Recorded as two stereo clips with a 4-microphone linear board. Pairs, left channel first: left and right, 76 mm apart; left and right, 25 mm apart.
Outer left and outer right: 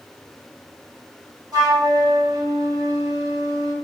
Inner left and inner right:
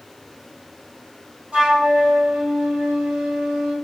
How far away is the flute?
About 1.8 m.